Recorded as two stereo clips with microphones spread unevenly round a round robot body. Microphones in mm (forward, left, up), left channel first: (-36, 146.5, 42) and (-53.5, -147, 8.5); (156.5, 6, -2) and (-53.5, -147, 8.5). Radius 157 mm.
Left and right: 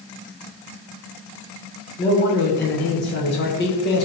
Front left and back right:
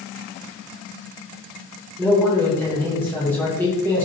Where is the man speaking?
110° left, 0.9 m.